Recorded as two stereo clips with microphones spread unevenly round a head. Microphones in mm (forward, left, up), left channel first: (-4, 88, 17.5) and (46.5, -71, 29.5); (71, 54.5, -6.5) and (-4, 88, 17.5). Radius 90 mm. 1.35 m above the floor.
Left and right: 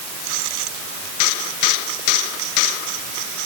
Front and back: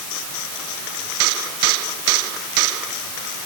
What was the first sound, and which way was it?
Only background noise.